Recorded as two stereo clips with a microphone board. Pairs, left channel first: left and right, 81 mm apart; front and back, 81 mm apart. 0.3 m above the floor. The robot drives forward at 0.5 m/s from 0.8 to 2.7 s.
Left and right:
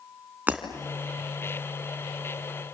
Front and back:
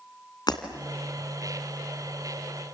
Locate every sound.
0.5 s breaking glass: 20° right, 2 m